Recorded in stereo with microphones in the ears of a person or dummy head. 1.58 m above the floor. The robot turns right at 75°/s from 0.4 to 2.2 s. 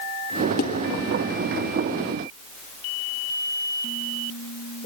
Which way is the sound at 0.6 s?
45° left (ahead or behind).